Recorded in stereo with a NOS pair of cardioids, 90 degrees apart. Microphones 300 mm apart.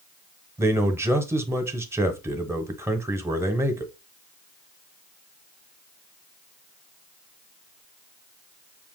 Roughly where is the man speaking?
Ahead.